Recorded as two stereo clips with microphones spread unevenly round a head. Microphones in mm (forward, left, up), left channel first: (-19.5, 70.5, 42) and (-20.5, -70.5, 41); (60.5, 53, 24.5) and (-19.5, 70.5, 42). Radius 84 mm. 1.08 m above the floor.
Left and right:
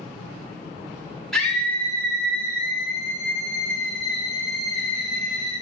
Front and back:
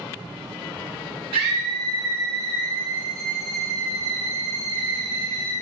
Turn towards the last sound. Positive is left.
turn(degrees=145)